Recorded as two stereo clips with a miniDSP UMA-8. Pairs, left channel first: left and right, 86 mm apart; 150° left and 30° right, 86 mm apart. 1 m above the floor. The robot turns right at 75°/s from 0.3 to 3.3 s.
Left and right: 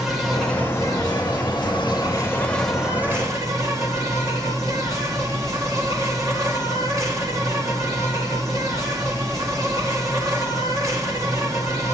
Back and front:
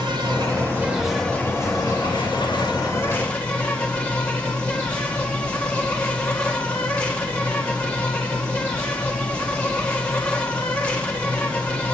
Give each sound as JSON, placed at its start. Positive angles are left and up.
{"t": 0.0, "sound": "an insect", "azimuth_deg": 0, "distance_m": 1.8}